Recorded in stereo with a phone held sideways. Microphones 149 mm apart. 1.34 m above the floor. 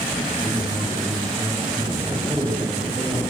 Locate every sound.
0.3 s a man speaking: 25° right (ahead or behind), 5.5 m